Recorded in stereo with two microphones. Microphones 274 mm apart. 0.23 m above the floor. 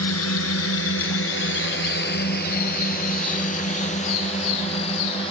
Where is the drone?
65° left (ahead or behind); by 5.3 s 20° left (ahead or behind).